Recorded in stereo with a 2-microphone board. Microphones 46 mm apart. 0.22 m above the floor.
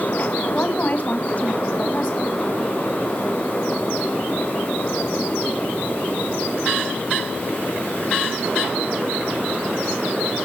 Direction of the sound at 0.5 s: 35° left (ahead or behind).